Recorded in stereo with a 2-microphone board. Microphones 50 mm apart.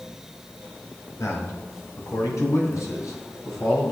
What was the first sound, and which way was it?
A man speaking, 70° left (ahead or behind).